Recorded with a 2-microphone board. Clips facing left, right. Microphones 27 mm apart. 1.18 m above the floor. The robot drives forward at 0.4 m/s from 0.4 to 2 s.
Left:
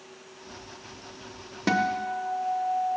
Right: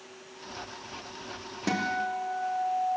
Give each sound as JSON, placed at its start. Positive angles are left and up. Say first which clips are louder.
{"t": 1.7, "sound": "a guitar", "louder": "left 4 dB", "side_deg": 25, "distance_m": 0.6}